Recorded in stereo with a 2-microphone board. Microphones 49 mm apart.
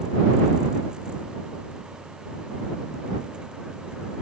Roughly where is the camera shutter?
No camera shutter in this recording.